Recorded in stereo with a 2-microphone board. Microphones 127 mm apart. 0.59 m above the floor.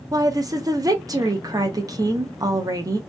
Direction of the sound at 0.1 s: 30° right (ahead or behind).